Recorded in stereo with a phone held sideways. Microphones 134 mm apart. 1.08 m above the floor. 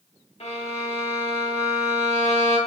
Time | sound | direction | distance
0.4 | a violin | 50° left (ahead or behind) | 0.8 m